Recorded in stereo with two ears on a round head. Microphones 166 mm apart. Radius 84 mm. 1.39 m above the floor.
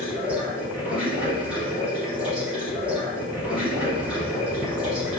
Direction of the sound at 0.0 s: 5° right (ahead or behind).